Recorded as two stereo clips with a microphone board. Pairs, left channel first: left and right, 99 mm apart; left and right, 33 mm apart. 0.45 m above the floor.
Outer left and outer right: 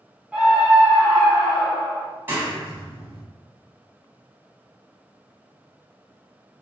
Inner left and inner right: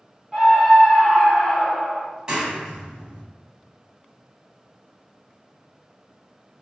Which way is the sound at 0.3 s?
10° right (ahead or behind).